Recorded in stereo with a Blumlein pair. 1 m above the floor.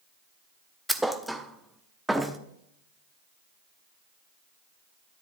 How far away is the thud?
About 0.8 m.